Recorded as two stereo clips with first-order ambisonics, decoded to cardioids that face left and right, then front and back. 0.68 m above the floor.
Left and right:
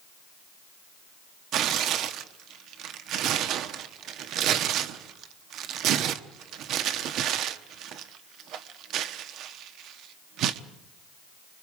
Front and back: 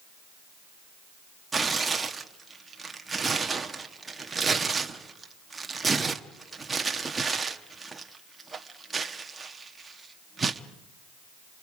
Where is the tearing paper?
105° right, 1.0 m.